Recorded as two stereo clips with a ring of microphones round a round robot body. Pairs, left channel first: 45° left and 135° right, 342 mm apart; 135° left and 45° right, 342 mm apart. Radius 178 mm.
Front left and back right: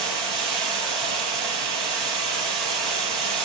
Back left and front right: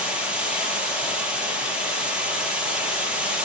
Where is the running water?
130° right, 4.5 m.